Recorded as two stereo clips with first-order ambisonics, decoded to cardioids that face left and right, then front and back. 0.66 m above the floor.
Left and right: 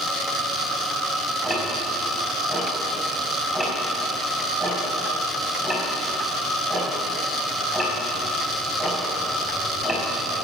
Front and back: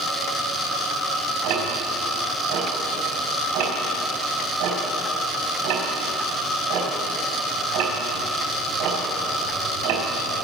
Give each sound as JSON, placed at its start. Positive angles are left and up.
{"t": 1.4, "sound": "ticking", "azimuth_deg": 175, "distance_m": 4.5}